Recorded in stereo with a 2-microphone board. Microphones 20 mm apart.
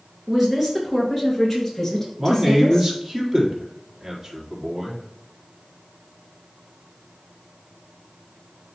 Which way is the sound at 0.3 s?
10° right (ahead or behind).